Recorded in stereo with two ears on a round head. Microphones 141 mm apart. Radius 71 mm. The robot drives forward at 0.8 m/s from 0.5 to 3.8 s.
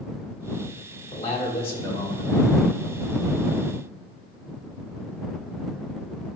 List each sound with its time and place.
1.1 s a man speaking: 45° left (ahead or behind), 2.5 m; by 2.3 s 30° left (ahead or behind), 3.5 m